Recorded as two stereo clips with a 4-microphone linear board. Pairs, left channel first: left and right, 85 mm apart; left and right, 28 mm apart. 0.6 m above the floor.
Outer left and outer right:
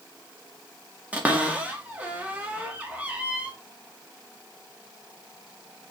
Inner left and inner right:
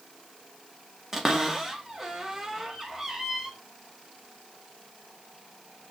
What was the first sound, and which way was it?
A cupboard door, 20° right (ahead or behind).